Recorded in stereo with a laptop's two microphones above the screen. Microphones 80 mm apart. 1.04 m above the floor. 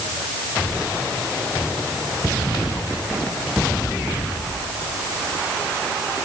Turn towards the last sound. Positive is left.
No sound to turn to.